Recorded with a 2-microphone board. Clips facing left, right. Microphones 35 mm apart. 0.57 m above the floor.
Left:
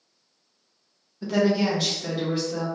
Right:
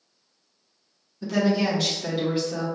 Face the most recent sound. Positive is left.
turn(degrees=-10)  # may be behind; listen again after turning